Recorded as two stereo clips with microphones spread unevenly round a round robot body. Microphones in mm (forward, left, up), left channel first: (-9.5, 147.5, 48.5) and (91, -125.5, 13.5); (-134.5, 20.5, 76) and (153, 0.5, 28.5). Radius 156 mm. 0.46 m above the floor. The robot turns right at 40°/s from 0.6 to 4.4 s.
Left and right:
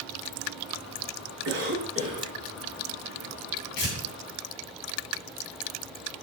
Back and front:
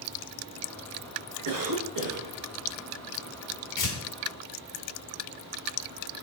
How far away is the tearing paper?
About 2.5 m.